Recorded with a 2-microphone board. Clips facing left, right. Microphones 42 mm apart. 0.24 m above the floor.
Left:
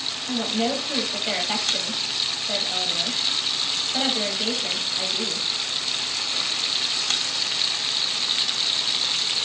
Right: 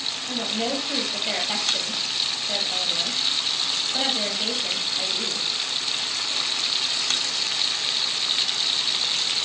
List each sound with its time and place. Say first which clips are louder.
0.3 s a woman speaking: left 3 dB; 10° left (ahead or behind), 1.0 m